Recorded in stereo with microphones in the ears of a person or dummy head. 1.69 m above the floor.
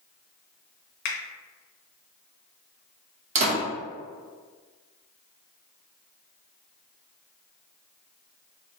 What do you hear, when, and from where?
1.1 s a finger snap: 50° left (ahead or behind), 0.9 m
3.4 s a door slam: 40° right (ahead or behind), 1.5 m